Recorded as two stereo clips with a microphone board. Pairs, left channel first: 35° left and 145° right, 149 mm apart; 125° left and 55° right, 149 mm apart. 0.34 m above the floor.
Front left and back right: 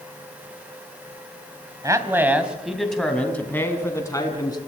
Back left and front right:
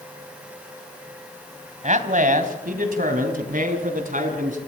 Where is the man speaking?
80° right, 2.5 m; by 4.6 s 30° right, 4.5 m.